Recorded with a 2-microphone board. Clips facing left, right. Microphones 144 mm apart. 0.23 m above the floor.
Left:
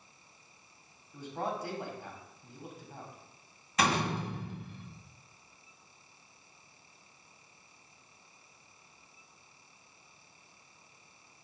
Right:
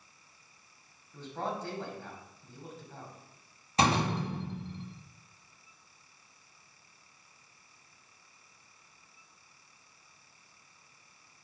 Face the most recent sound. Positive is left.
turn(degrees=-30)  # may be behind; listen again after turning